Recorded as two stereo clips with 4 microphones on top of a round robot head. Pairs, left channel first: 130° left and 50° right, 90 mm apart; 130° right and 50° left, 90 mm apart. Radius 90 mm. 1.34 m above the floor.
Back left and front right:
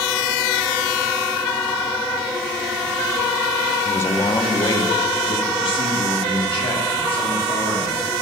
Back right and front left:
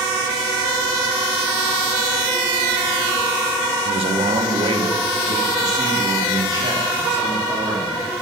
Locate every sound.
3.9 s a man speaking: 60° left, 0.8 m; by 8.2 s 110° left, 3.5 m